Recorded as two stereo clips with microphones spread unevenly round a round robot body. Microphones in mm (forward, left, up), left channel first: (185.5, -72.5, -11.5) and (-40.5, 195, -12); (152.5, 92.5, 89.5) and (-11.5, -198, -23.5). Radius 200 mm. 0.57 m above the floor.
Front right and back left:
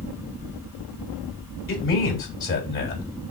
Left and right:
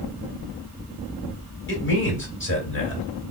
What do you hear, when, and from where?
1.7 s a man speaking: straight ahead, 2 m